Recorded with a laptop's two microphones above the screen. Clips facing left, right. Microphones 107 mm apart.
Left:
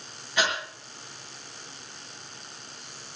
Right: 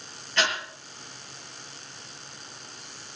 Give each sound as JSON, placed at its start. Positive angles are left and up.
{"t": 0.4, "sound": "breathing", "side_deg": 10, "distance_m": 8.5}